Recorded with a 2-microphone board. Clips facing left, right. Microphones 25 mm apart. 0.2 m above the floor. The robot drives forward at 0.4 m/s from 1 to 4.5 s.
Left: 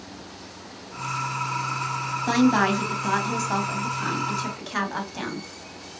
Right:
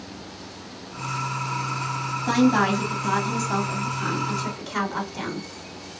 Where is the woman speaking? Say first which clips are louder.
Even; 15° left (ahead or behind), 1.1 m.